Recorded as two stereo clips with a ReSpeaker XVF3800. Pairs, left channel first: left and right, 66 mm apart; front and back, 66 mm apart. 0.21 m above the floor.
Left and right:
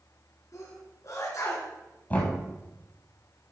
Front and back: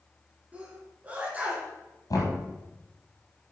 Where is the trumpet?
I don't hear a trumpet.